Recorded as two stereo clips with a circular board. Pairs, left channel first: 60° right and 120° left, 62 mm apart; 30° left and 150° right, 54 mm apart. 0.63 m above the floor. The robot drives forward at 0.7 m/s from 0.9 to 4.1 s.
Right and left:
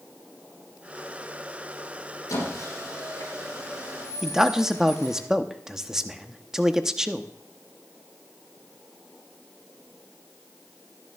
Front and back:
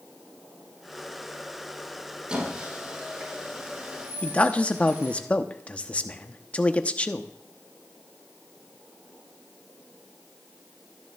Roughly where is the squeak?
Right.